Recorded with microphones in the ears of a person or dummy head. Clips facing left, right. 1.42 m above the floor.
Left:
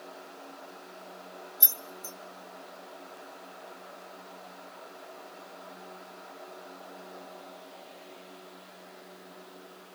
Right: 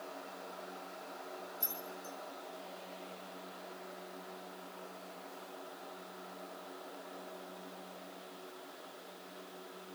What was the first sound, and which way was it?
Keys jangling, 75° left (ahead or behind).